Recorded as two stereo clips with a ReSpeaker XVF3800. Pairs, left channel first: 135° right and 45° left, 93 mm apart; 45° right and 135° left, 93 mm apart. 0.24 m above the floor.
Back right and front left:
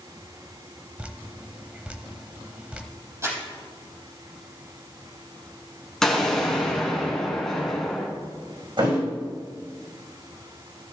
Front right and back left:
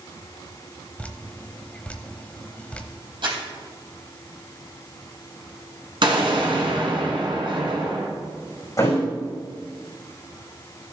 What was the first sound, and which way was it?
Dripping, 5° right.